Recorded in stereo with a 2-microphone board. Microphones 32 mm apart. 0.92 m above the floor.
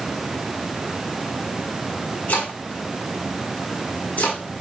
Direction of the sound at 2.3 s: 80° left.